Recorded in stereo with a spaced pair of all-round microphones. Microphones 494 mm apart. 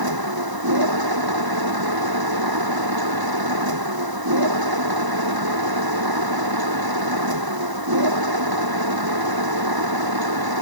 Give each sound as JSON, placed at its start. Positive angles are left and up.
{"t": 0.0, "sound": "a machine running", "side_deg": -45}